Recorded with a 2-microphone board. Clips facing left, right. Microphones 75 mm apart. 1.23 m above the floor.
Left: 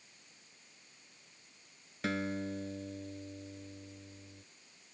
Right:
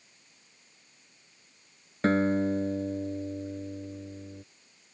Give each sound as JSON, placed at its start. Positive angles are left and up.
{"t": 2.0, "sound": "a guitar", "side_deg": -40}